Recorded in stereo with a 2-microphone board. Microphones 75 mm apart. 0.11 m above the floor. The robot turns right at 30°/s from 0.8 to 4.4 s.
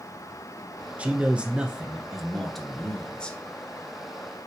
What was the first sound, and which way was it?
A man speaking, 20° right (ahead or behind).